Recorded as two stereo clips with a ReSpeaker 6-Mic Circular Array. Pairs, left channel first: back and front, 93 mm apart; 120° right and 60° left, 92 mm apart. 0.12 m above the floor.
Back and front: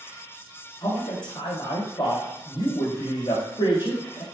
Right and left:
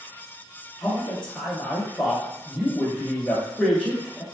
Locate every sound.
0.8 s a man speaking: 160° left, 2 m